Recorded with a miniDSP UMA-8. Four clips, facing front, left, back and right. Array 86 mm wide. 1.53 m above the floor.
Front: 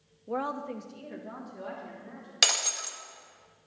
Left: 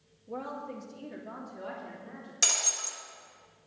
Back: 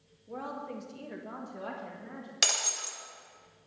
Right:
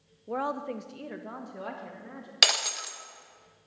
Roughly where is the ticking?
I don't hear ticking.